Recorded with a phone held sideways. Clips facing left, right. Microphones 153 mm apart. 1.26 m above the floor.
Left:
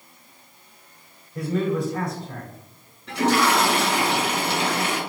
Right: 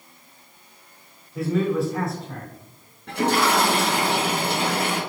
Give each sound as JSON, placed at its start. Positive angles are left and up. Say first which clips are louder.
{"t": 1.4, "sound": "a man speaking", "louder": "right 2 dB", "side_deg": -5, "distance_m": 3.5}
{"t": 3.1, "sound": "a toilet flushing", "louder": "left 1 dB", "side_deg": -55, "distance_m": 3.0}